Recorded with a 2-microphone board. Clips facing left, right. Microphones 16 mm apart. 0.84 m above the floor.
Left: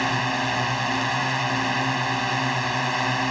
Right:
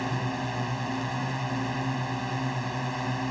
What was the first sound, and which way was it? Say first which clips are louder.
A drone: left 7 dB; 45° left (ahead or behind).